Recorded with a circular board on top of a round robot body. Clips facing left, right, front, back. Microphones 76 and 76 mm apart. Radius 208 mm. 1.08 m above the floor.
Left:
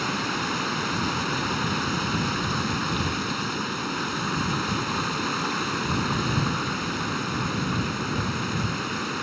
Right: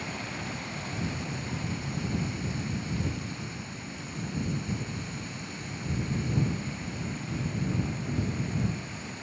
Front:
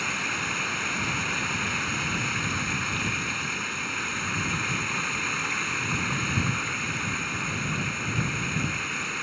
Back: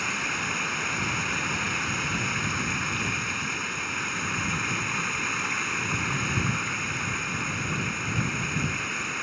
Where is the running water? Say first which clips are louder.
Left 9 dB, even; 95° left.